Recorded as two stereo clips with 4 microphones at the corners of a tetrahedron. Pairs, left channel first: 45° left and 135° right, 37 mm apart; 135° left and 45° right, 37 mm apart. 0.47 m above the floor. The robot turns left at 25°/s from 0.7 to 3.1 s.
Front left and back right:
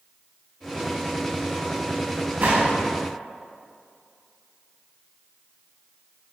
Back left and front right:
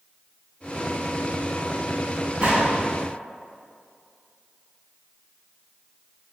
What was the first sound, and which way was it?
A gunshot, 100° right.